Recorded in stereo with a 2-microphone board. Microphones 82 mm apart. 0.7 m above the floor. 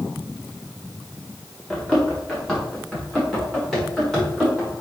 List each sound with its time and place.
1.7 s running footsteps: 5° left (ahead or behind), 4 m; by 4.7 s centre (ahead or behind), 6 m